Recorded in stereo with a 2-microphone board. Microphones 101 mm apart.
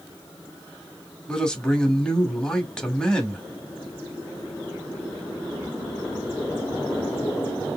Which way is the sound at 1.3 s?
10° left (ahead or behind).